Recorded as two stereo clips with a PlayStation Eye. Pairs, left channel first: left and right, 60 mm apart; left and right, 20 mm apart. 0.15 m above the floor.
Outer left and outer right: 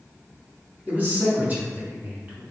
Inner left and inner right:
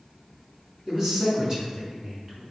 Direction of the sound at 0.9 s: 35° right (ahead or behind).